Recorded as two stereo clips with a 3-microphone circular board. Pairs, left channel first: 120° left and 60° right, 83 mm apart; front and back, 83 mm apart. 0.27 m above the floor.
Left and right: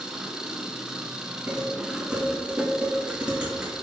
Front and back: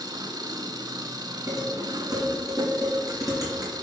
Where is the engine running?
140° right, 0.9 m.